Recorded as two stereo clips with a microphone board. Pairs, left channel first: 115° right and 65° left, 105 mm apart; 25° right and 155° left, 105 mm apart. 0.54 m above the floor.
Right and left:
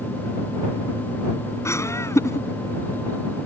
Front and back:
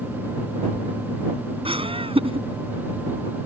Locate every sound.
1.6 s laughter: 175° right